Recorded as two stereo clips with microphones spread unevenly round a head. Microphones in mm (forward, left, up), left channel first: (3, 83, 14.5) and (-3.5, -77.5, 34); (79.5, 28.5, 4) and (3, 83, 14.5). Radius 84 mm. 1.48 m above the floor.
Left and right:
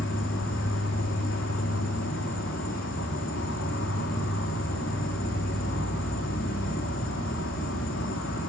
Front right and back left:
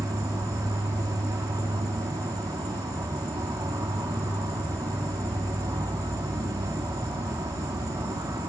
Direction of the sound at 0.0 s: 95° left.